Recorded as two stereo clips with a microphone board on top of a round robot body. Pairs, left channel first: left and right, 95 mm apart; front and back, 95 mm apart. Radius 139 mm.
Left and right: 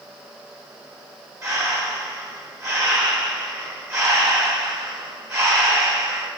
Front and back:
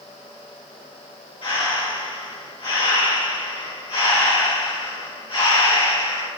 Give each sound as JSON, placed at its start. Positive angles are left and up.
{"t": 1.4, "sound": "breathing", "azimuth_deg": -30, "distance_m": 1.9}